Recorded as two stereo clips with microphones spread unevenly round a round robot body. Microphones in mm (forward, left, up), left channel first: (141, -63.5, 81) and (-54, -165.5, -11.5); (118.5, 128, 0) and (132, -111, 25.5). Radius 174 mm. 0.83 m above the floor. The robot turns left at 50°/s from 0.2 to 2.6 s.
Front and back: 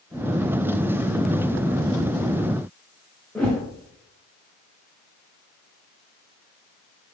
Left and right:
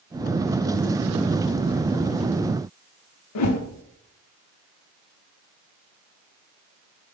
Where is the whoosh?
110° left, 0.8 m.